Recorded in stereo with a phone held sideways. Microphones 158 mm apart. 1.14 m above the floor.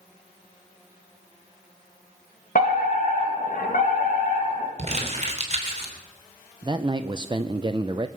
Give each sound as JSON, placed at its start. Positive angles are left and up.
{"t": 2.5, "sound": "a fire alarm", "side_deg": 60, "distance_m": 2.5}
{"t": 4.8, "sound": "crumpling", "side_deg": -45, "distance_m": 3.0}
{"t": 6.6, "sound": "a man speaking", "side_deg": -30, "distance_m": 0.5}